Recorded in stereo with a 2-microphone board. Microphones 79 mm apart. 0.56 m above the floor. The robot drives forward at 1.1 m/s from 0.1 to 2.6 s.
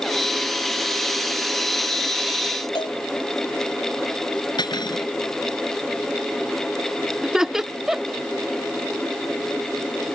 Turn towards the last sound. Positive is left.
turn(degrees=-5)  # may be behind; listen again after turning